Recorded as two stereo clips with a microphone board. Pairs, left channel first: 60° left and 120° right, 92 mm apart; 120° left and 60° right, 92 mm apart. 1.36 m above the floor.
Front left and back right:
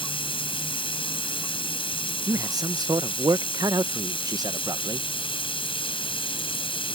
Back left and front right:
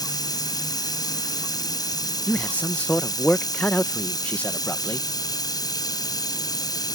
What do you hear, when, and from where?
0.0 s running water: 75° left
2.3 s a man speaking: 165° right